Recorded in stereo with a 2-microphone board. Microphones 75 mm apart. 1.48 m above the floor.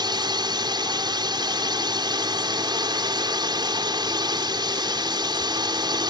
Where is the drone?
75° right (ahead or behind).